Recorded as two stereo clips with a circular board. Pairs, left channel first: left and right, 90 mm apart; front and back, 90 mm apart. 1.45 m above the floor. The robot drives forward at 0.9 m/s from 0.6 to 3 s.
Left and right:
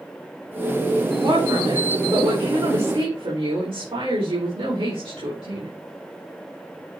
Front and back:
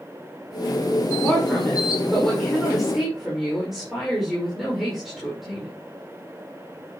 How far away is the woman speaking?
About 5 m.